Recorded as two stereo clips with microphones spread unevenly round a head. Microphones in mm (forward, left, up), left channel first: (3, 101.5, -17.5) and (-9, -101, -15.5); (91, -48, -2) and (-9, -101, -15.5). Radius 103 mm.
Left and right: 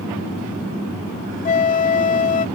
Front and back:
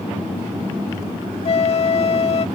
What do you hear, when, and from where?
1.4 s a flute: 40° left